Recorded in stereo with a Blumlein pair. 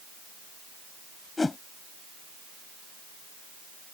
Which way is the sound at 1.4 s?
10° left.